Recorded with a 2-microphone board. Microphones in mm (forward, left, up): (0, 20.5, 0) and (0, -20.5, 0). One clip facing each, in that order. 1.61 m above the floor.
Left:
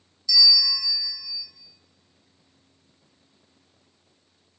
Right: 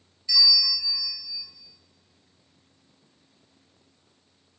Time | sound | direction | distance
0.3 | a bell | 25° right (ahead or behind) | 0.6 m